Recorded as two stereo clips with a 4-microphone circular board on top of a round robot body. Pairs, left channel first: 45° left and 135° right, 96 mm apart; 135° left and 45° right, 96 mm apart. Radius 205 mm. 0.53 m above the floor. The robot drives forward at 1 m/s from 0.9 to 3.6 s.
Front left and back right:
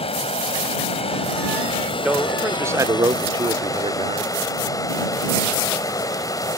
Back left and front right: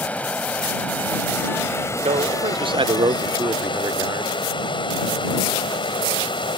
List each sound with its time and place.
0.0 s running water: 60° left; by 6.6 s 100° left
2.0 s a man speaking: 55° right; by 4.3 s 100° right